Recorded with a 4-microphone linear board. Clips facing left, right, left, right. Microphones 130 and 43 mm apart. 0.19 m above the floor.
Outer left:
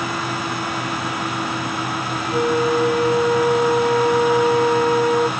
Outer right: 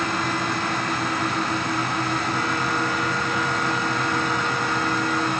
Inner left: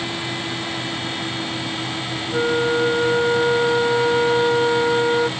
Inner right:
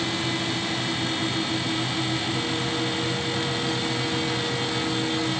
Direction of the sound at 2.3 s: 65° left (ahead or behind).